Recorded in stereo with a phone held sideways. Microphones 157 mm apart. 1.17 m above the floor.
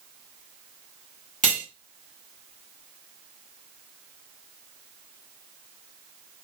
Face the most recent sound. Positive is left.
turn(degrees=55)  # may be behind; listen again after turning